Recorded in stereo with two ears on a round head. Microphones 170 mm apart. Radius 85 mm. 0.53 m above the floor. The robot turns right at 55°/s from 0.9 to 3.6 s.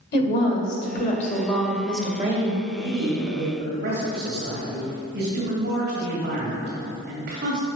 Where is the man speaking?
175° right, 2 m; by 7.7 s 125° right, 2 m.